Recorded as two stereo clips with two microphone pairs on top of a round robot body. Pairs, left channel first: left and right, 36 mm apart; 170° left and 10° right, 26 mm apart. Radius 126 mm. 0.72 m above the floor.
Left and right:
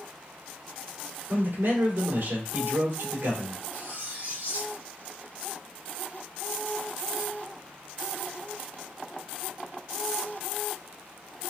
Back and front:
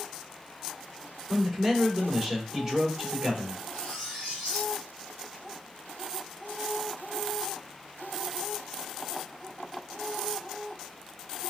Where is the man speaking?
80° right, 2.5 m.